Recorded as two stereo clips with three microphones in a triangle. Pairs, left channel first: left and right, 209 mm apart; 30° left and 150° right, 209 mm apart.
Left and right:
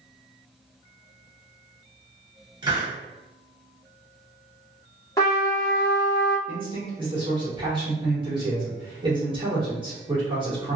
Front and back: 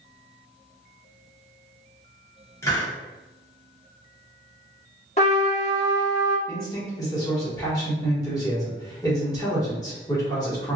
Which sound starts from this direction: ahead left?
A trumpet, at 5.2 s.